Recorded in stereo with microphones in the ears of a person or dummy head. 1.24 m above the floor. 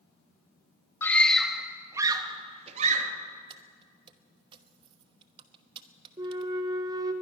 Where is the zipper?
No zipper in this recording.